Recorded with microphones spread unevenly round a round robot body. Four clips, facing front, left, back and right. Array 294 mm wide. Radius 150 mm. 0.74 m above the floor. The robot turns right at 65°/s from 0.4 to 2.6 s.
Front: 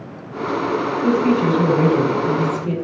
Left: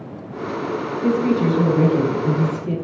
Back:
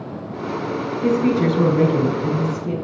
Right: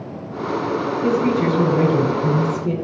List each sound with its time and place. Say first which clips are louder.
1.0 s a woman speaking: left 1 dB, even; straight behind, 3 m; by 2.8 s 80° right, 3 m